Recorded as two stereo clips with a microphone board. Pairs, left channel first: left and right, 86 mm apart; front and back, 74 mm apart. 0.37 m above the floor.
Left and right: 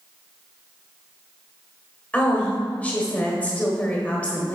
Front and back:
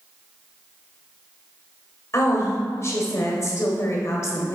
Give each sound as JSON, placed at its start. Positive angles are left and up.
{"t": 2.1, "sound": "a woman speaking", "azimuth_deg": 25, "distance_m": 1.4}